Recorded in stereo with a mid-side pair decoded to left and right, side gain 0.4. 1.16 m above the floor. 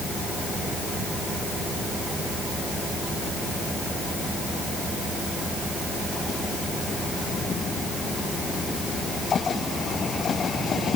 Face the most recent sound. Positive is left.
No sound to turn to.